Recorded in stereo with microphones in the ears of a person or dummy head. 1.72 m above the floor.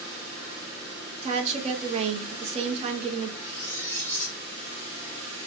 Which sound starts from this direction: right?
A woman speaking, at 1.2 s.